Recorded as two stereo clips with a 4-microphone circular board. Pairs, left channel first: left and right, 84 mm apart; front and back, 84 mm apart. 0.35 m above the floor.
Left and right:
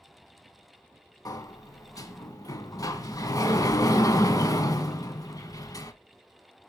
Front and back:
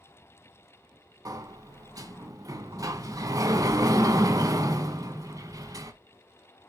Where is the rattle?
I don't hear a rattle.